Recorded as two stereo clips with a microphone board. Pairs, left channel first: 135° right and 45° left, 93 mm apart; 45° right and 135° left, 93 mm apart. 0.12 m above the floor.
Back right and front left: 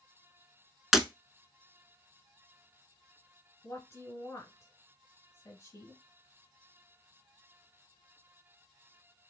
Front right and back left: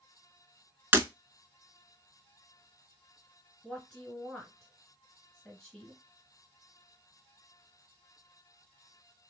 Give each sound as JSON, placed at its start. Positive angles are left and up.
{"t": 0.9, "sound": "breaking glass", "azimuth_deg": 125, "distance_m": 0.6}
{"t": 3.6, "sound": "a woman speaking", "azimuth_deg": -125, "distance_m": 1.6}